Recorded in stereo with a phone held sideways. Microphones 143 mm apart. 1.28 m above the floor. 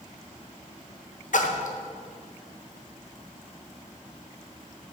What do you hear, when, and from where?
1.3 s a splash: 65° left (ahead or behind), 0.7 m